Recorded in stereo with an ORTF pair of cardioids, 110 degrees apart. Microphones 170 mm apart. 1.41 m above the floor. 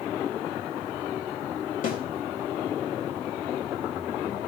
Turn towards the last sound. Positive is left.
turn(degrees=55)